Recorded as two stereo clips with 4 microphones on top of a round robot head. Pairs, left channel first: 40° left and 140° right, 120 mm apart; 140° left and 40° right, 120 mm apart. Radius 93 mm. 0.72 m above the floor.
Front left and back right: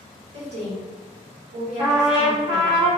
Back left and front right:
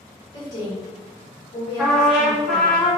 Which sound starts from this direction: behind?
A woman speaking, at 0.3 s.